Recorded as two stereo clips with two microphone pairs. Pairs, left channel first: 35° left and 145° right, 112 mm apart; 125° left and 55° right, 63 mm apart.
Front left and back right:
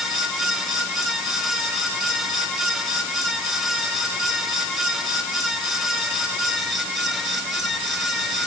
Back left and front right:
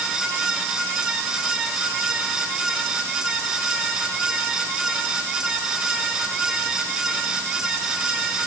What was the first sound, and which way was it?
Only background noise.